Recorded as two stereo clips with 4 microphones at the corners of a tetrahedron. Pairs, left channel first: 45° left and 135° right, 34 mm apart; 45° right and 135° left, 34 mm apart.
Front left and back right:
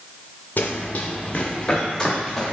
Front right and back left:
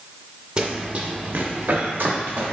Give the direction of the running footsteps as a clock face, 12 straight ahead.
10 o'clock.